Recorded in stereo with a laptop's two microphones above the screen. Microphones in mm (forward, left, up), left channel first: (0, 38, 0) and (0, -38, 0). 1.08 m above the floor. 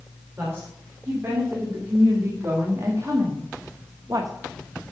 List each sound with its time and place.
0.4 s a woman speaking: 35° right (ahead or behind), 3 m; by 4.3 s 55° right (ahead or behind), 0.9 m